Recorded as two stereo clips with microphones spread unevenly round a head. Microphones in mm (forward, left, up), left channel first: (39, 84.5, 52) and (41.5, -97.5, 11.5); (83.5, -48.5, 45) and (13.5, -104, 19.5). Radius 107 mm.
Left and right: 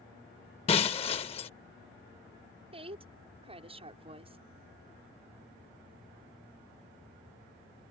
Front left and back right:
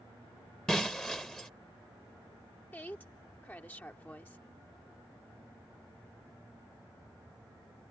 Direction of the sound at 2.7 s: 30° right.